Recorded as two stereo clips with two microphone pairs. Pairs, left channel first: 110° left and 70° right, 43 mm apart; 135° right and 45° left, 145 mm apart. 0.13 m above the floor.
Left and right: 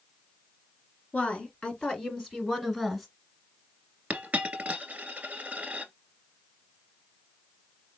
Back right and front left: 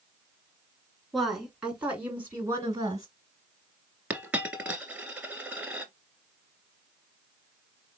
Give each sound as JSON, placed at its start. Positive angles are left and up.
{"t": 1.1, "sound": "a woman speaking", "azimuth_deg": 135, "distance_m": 1.7}
{"t": 4.1, "sound": "a dropped coin", "azimuth_deg": -30, "distance_m": 0.8}